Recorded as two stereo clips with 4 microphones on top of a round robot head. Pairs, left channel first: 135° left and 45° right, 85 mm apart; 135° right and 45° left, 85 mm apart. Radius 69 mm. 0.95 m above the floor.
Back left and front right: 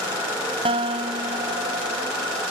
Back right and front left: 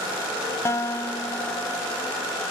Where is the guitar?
75° right.